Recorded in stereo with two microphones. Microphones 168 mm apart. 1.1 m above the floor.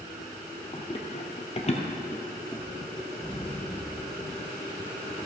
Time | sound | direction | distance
0.7 | running footsteps | 35° left (ahead or behind) | 1.6 m
3.2 | an explosion | 30° left (ahead or behind) | 0.9 m